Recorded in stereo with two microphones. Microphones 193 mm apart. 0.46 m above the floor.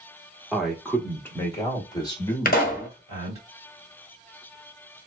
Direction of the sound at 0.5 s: Centre (ahead or behind).